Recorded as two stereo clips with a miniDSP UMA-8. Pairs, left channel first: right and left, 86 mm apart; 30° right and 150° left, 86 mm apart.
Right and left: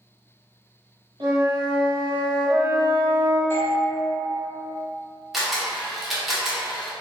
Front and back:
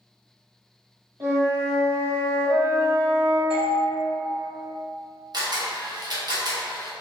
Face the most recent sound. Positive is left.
turn(degrees=180)